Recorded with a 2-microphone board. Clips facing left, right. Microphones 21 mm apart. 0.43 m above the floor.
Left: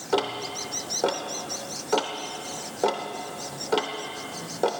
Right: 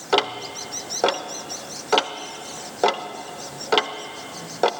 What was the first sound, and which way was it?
Ticking, 35° right (ahead or behind).